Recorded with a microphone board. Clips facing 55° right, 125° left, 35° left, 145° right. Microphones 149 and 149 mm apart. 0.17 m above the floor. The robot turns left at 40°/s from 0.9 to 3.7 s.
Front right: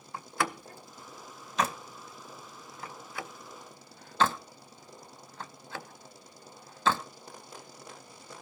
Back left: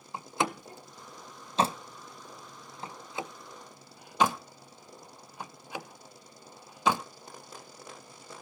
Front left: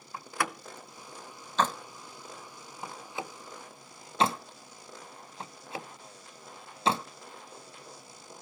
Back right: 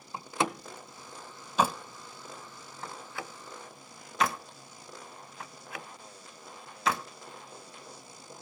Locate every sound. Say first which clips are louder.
0.1 s a door slam: back left 2 dB, back right 3 dB; 175° left, 0.7 m; by 7.0 s 60° left, 0.7 m